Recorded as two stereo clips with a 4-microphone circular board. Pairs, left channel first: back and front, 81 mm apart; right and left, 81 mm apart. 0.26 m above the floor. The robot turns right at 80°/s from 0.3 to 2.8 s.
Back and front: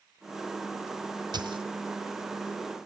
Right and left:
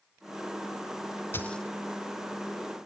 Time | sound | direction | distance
1.3 | a dropped coin | 25° right | 1.2 m